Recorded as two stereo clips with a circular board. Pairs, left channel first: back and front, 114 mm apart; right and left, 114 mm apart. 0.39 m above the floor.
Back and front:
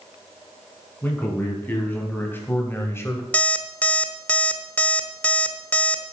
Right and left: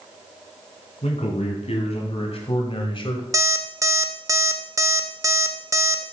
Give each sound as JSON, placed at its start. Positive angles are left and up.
{"t": 1.0, "sound": "a man speaking", "azimuth_deg": -105, "distance_m": 3.5}
{"t": 3.3, "sound": "an alarm clock", "azimuth_deg": 115, "distance_m": 0.7}